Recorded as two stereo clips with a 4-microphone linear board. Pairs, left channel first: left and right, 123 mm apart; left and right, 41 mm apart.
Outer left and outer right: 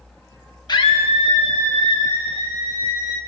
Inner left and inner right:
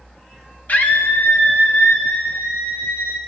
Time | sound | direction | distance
0.7 | a scream | 35° left (ahead or behind) | 0.7 m